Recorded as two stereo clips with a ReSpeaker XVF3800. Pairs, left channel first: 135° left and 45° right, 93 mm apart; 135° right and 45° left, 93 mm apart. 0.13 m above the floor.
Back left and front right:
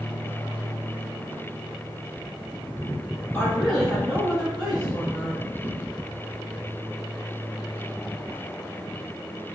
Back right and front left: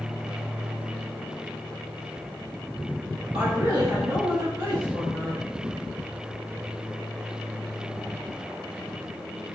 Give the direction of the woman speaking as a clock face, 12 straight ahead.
10 o'clock.